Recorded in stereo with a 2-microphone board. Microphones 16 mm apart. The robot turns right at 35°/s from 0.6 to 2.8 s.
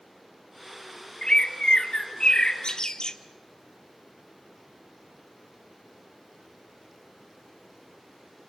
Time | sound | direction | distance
1.2 | a bird | 65° left | 0.9 m